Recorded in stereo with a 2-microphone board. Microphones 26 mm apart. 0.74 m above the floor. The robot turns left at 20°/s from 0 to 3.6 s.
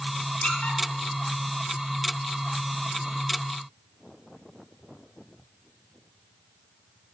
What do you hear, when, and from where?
0.4 s a squeak: 55° left (ahead or behind), 3 m; by 0.8 s 65° left (ahead or behind), 3 m